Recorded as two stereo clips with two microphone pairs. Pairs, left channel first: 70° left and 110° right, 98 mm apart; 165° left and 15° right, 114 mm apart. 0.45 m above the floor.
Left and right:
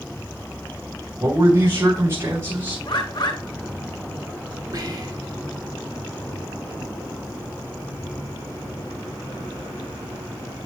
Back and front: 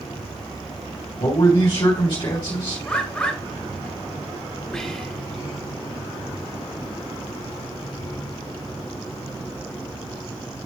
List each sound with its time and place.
1.2 s a man speaking: 160° right, 2.5 m
2.9 s a bird: 85° left, 1.6 m
4.7 s whispering: 115° right, 1.9 m